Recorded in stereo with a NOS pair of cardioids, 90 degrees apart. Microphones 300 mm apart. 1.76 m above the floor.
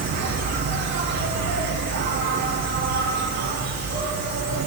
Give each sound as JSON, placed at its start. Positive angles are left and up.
{"t": 0.0, "sound": "an insect", "azimuth_deg": -60, "distance_m": 3.0}